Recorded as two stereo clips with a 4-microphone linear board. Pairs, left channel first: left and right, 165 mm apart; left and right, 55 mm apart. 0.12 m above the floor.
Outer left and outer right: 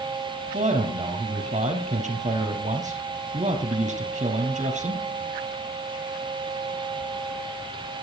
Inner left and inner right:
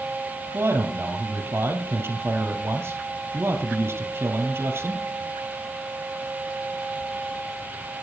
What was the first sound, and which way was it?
A man speaking, 45° right (ahead or behind).